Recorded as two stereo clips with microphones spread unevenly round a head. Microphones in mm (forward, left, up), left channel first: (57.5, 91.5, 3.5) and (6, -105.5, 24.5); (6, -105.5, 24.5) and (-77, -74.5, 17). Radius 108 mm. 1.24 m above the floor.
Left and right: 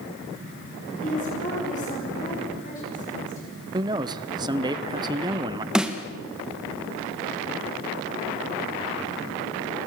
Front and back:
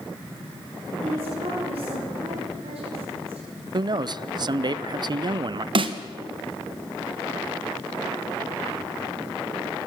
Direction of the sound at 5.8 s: 165° left.